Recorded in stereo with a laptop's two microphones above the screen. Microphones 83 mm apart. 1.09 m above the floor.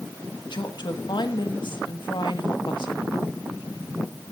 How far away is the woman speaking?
About 1.9 m.